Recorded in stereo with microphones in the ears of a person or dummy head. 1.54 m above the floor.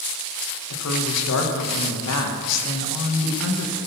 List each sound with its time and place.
0.7 s a woman speaking: 85° left, 2 m